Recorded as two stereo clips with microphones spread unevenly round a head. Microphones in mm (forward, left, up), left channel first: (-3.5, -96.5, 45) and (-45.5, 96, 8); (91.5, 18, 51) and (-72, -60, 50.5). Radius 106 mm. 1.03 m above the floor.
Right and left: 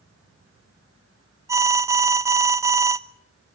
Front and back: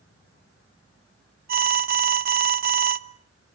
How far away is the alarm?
About 0.9 m.